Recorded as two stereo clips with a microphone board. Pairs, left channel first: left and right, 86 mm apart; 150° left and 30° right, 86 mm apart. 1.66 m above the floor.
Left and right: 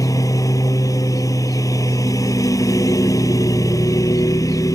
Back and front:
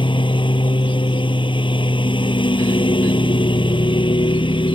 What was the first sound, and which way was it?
A lawn mower, 140° left.